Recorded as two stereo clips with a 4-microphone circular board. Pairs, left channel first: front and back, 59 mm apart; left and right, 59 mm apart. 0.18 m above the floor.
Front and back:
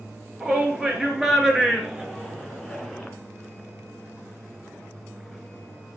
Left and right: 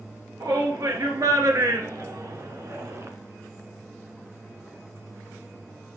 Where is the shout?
100° right, 3.5 m; by 3.1 s 75° right, 2 m.